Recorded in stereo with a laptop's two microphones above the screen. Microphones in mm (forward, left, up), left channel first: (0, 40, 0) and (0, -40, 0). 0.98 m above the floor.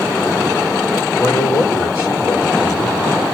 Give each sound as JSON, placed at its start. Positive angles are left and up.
{"t": 1.2, "sound": "a man speaking", "side_deg": 40, "distance_m": 3.0}